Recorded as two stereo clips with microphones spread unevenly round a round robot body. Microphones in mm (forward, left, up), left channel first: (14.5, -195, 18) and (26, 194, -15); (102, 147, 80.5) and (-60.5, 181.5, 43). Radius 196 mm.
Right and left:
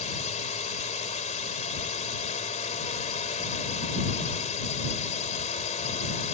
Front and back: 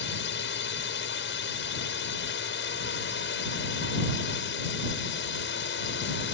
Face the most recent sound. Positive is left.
turn(degrees=-20)